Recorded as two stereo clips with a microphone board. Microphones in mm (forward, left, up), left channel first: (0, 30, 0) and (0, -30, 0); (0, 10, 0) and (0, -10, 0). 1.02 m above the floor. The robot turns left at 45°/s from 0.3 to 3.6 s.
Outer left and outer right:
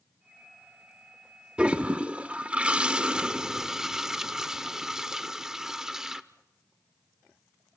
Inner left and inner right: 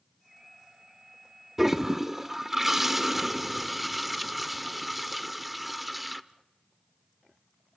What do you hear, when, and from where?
1.6 s a toilet flushing: 15° right (ahead or behind), 0.7 m; by 6.2 s 10° right (ahead or behind), 0.7 m